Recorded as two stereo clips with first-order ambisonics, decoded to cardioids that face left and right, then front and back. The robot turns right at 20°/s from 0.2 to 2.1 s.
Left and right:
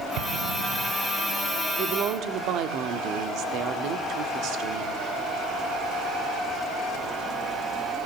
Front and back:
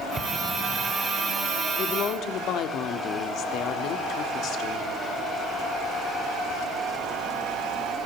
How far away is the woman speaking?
About 1.6 m.